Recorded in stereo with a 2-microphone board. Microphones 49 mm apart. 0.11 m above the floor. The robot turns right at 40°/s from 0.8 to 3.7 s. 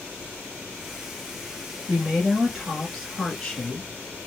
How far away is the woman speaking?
About 1.1 m.